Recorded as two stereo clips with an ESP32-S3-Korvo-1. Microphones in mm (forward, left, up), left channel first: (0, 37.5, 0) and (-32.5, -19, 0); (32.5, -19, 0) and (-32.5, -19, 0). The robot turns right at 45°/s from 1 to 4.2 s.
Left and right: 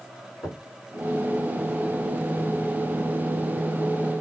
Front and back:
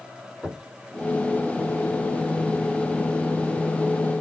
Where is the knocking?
100° left, 4 m.